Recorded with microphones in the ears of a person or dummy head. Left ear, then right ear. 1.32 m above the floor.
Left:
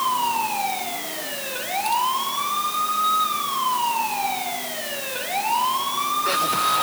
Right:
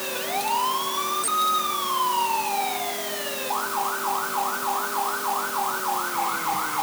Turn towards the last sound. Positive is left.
No sound to turn to.